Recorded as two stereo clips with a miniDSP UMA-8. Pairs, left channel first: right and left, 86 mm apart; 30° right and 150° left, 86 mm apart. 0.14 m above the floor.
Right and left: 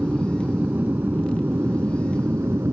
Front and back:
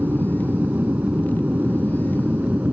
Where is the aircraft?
125° left; by 2.7 s 90° left.